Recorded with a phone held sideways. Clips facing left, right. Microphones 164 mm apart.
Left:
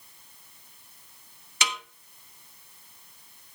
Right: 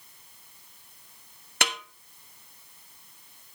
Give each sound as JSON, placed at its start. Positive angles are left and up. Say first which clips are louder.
{"t": 1.6, "sound": "a snare drum", "louder": "right 2 dB", "side_deg": -60, "distance_m": 1.0}